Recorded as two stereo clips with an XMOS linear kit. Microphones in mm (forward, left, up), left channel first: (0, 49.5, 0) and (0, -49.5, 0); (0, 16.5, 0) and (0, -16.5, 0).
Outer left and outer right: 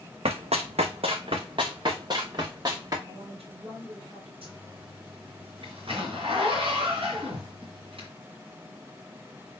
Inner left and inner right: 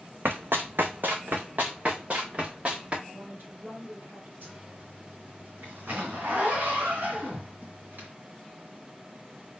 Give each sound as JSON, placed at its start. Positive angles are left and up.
{"t": 0.2, "sound": "running footsteps", "side_deg": -75, "distance_m": 1.0}
{"t": 3.0, "sound": "a woman speaking", "side_deg": -65, "distance_m": 3.0}
{"t": 4.4, "sound": "a zipper", "side_deg": -60, "distance_m": 3.0}